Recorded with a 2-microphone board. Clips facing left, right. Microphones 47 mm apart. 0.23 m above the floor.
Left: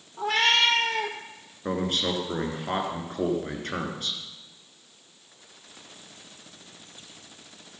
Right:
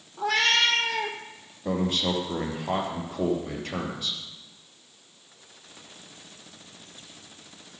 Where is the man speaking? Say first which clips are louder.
Right 1 dB; 50° left (ahead or behind), 3 m.